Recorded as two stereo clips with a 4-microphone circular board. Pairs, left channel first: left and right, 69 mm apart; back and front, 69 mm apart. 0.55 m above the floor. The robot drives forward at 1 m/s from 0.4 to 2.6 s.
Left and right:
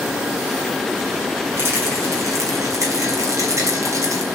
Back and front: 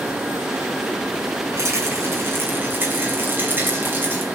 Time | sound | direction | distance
1.6 | a rattle | 40° right | 3.5 m